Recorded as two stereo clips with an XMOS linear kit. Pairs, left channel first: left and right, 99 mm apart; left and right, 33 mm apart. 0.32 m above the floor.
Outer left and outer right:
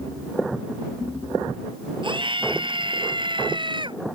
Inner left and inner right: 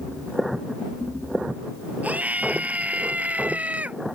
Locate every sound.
2.0 s a scream: 55° right (ahead or behind)